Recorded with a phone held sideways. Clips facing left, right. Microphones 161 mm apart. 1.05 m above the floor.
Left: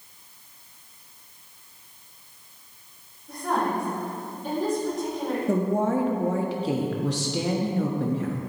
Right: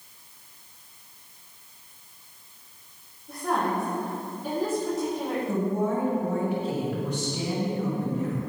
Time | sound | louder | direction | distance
3.3 | a woman speaking | left 1 dB | 5° right (ahead or behind) | 2.5 m
5.5 | a woman speaking | left 4 dB | 75° left (ahead or behind) | 1.3 m